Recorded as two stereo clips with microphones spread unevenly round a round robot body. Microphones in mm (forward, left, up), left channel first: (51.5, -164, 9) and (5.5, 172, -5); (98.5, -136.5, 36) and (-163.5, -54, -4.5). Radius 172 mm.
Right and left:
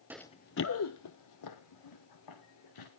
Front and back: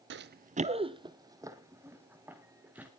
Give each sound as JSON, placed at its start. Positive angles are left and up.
{"t": 0.1, "sound": "running footsteps", "azimuth_deg": 180, "distance_m": 0.6}